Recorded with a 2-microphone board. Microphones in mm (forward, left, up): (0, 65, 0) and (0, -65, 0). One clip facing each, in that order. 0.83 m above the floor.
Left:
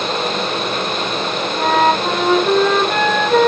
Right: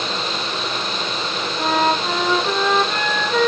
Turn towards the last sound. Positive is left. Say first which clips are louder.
# left 4 dB
turn(degrees=65)  # may be behind; listen again after turning